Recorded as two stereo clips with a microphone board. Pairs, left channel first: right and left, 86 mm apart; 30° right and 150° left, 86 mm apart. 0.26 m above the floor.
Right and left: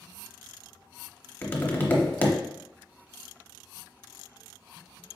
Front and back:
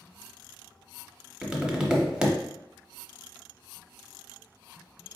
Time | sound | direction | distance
1.4 | tapping | 135° right | 0.7 m